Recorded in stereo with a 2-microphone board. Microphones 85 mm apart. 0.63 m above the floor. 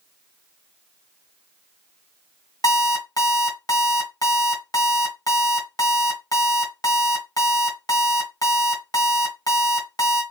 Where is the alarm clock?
50° left (ahead or behind), 2 m.